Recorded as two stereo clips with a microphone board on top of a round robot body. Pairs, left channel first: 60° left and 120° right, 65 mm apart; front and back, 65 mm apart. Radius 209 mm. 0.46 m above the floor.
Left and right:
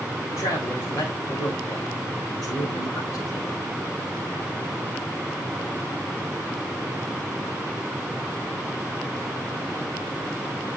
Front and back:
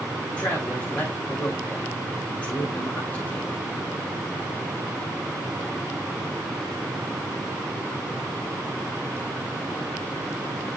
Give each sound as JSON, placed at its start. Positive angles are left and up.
{"t": 0.3, "sound": "a man speaking", "azimuth_deg": 65, "distance_m": 3.0}